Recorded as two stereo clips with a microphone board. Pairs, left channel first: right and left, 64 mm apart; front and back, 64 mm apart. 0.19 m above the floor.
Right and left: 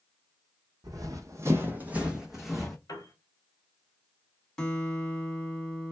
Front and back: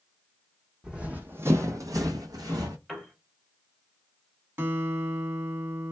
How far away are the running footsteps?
About 0.7 m.